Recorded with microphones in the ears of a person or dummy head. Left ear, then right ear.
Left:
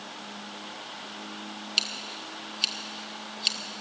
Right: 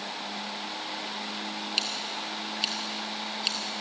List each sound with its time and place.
1.8 s scissors: 15° left (ahead or behind), 0.9 m